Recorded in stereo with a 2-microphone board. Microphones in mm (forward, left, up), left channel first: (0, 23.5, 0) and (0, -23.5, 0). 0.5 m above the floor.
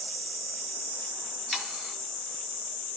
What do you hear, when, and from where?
1.5 s sawing: 5° left (ahead or behind), 1.9 m